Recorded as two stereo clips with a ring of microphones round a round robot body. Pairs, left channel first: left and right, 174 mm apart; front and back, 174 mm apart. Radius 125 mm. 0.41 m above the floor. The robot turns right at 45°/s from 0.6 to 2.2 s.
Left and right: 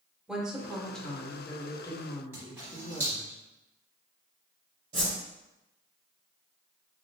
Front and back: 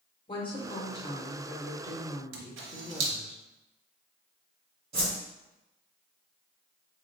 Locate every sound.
0.3 s a woman speaking: 10° right, 0.9 m; by 3.3 s 65° left, 0.9 m
2.3 s a camera shutter: 170° right, 0.7 m
4.9 s a whoosh: 140° right, 1.3 m